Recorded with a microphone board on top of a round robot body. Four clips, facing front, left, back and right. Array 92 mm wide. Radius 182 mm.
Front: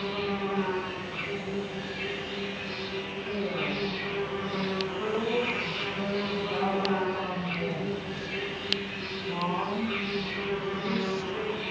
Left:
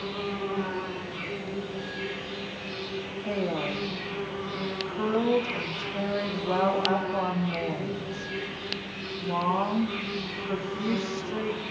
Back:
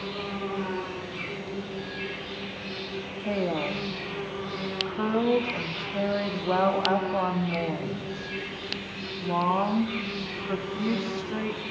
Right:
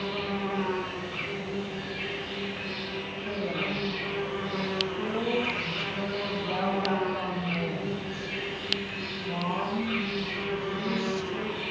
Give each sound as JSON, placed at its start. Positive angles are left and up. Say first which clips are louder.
{"t": 0.0, "sound": "an insect", "louder": "right 1 dB, front 2 dB", "azimuth_deg": -60, "distance_m": 6.0}
{"t": 3.2, "sound": "a woman speaking", "louder": "left 3 dB, back 5 dB", "azimuth_deg": 160, "distance_m": 2.0}